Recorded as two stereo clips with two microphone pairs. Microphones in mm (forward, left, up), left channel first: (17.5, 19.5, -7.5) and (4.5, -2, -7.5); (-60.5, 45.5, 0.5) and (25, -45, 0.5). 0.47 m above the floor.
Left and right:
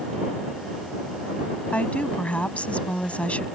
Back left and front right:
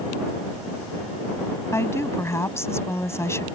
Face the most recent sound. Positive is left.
turn(degrees=70)